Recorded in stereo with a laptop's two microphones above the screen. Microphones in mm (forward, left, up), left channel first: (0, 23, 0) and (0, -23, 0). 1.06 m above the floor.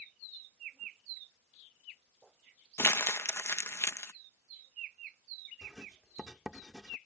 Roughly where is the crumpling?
Left.